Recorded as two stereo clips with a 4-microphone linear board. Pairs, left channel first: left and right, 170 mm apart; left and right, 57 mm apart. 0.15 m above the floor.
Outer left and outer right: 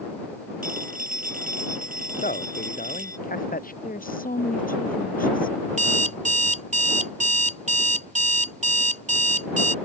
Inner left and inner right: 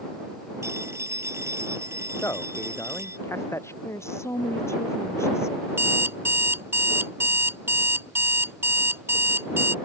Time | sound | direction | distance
0.6 | a phone ringing | 60° right (ahead or behind) | ?
2.2 | a man speaking | 55° left (ahead or behind) | ?
3.8 | a woman speaking | 55° left (ahead or behind) | ?
5.7 | an alarm clock | 45° right (ahead or behind) | ?